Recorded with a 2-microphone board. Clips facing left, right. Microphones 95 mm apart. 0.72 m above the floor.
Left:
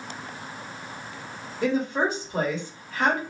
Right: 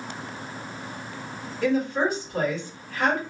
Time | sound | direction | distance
1.6 | a woman speaking | 20° left (ahead or behind) | 1.4 m